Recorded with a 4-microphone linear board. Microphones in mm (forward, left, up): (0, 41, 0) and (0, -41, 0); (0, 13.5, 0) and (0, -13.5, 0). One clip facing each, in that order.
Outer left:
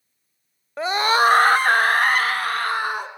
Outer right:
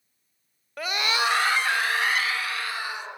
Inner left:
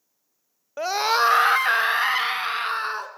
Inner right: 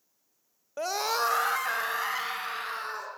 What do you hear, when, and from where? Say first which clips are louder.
0.8 s a scream: outer left 8 dB, inner left 8 dB; 25° left (ahead or behind), 0.8 m; by 3.1 s 50° left (ahead or behind), 3.5 m